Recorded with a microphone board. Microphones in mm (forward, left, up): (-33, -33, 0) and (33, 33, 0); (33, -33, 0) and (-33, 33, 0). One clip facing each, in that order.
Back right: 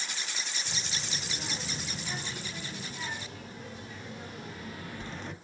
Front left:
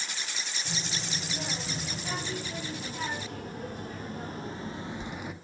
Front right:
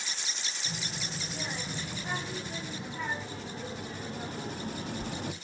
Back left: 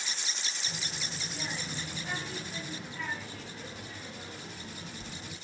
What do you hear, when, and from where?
0.7 s a child speaking: 30° left, 3.5 m; by 5.3 s 35° right, 0.9 m